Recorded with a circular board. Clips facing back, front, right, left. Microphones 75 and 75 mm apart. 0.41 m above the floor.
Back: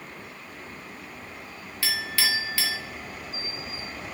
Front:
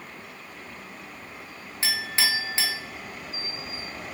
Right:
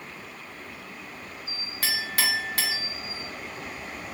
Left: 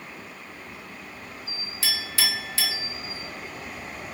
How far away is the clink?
About 0.6 m.